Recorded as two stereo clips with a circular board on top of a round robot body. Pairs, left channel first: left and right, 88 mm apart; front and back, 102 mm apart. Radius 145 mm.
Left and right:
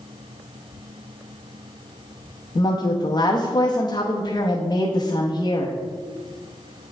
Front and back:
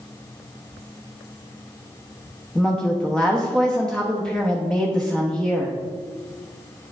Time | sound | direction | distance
2.5 | a woman speaking | 80° left | 1.0 m